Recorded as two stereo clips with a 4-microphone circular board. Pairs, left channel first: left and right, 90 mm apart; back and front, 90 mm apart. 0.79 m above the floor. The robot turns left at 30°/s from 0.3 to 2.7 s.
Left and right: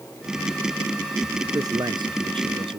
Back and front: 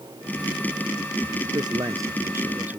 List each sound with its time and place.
1.5 s a man speaking: 40° right; by 2.8 s 75° right